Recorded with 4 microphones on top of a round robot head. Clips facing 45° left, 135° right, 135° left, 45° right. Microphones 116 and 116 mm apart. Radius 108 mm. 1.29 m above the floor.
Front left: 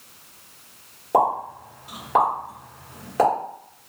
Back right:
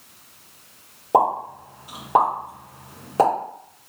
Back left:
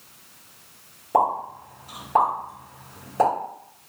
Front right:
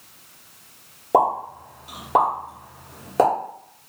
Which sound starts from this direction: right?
A pop, at 1.1 s.